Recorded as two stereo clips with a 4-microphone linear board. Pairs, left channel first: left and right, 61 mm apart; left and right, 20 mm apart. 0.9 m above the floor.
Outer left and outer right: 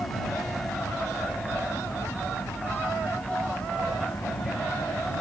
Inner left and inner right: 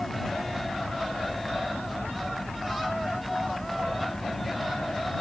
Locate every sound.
0.0 s an aircraft: 75° left (ahead or behind)